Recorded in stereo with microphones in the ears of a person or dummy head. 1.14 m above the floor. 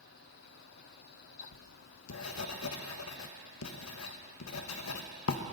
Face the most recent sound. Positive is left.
turn(degrees=80)